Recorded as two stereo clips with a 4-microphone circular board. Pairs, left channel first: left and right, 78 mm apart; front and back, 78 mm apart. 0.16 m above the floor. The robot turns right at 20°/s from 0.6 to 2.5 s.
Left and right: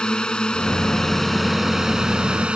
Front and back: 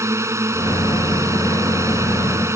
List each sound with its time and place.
0.0 s a drone: 165° left; by 2.6 s 160° right